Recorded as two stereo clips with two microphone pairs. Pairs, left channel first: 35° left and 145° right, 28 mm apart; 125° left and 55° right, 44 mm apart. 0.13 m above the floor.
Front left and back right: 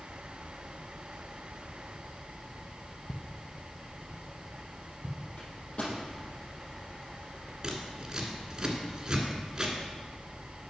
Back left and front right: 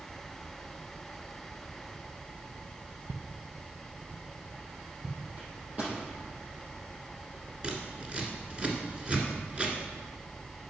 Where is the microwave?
Straight ahead, 3.5 m.